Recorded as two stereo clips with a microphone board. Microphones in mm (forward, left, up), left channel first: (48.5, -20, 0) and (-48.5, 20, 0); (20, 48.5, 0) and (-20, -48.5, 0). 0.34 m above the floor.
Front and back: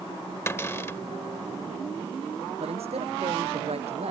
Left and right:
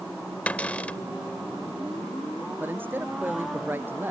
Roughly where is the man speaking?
Behind.